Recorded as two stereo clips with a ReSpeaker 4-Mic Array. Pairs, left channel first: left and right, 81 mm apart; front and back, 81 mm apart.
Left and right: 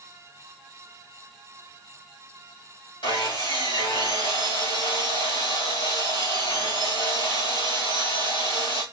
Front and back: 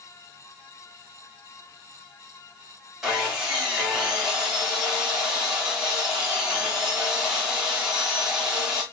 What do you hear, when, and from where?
3.0 s sawing: 95° left, 5 m